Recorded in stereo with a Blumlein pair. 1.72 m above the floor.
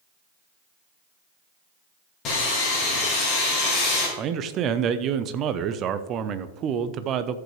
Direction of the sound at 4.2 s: 30° right.